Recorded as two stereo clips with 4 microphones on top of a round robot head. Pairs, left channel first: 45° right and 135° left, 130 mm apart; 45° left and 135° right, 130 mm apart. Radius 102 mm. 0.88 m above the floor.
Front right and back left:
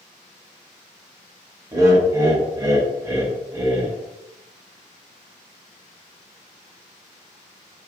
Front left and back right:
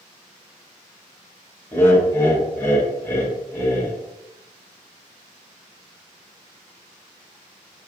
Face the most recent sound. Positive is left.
turn(degrees=100)